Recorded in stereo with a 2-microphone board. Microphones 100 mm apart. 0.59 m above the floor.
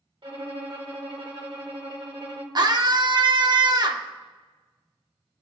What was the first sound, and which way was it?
A violin, 55° right (ahead or behind).